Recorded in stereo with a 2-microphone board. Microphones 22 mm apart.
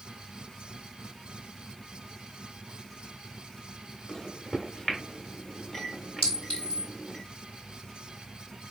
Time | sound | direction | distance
4.1 | a microwave | 30° left (ahead or behind) | 1.3 m
6.2 | a clink | 65° left (ahead or behind) | 3 m